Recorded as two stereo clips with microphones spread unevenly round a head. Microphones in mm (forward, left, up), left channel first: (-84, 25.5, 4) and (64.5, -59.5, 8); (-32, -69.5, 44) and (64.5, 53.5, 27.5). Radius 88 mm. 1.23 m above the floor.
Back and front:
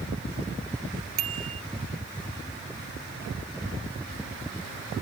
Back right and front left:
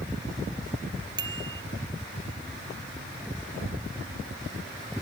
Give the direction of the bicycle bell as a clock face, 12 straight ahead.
12 o'clock.